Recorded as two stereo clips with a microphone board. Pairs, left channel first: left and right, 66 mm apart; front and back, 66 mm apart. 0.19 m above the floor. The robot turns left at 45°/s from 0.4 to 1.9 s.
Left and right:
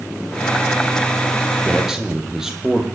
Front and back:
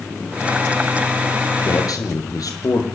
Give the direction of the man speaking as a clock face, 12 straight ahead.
12 o'clock.